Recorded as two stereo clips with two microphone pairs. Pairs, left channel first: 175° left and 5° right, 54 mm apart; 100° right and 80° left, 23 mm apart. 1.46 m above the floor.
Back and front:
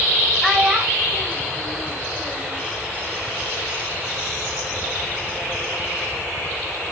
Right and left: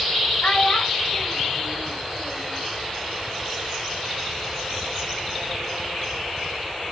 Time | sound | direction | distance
0.4 | a child speaking | 100° right | 1.9 m